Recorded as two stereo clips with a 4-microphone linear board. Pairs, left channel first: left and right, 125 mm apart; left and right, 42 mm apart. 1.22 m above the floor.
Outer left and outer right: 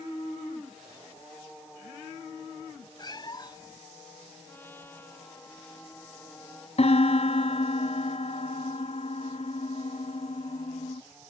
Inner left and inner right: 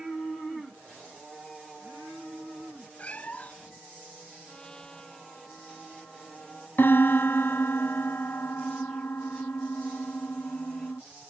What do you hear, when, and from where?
3.0 s a cat meowing: 35° left (ahead or behind)
4.5 s a trumpet: 15° left (ahead or behind)
6.8 s a piano: 55° left (ahead or behind)